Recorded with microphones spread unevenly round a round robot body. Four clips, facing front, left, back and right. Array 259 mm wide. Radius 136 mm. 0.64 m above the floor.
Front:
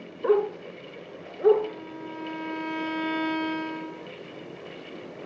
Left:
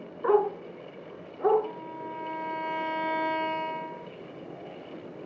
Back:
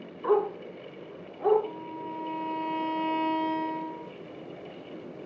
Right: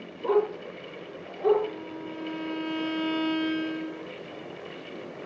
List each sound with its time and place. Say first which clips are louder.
0.2 s a dog barking: left 1 dB, front 2 dB; 10° left, 3 m; by 1.6 s straight ahead, 4 m
1.6 s a violin: right 2 dB, even; 5° right, 2.5 m